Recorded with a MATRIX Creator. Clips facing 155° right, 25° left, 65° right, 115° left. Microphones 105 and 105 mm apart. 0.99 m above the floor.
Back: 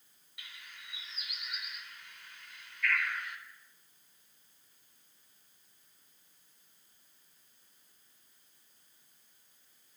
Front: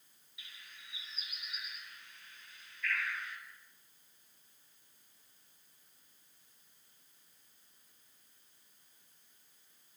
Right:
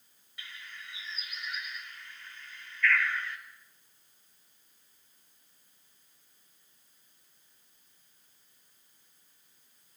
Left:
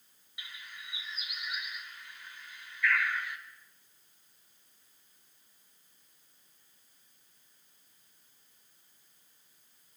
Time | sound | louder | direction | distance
0.4 | a bird | back 4 dB, right 1 dB | 170° right | 4 m